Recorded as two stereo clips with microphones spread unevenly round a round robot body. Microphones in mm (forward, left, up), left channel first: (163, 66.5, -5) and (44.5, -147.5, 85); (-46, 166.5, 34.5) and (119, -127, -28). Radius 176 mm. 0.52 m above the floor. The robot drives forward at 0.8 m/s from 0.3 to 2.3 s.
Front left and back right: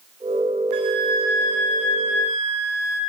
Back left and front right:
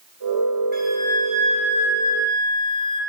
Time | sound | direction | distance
0.7 | a flute | 125° right | 3 m